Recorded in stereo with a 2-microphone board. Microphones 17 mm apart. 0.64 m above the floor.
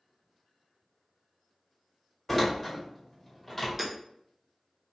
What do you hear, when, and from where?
2.3 s a door slam: 10° left (ahead or behind), 1.8 m
3.8 s hammering: 10° right (ahead or behind), 1.4 m